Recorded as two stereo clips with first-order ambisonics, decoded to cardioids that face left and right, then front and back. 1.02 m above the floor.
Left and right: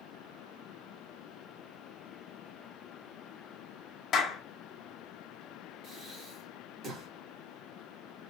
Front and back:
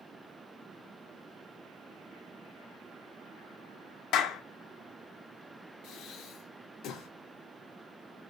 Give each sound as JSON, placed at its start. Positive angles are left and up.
{"t": 4.1, "sound": "a clap", "azimuth_deg": 30, "distance_m": 0.7}
{"t": 5.8, "sound": "breathing", "azimuth_deg": -35, "distance_m": 1.0}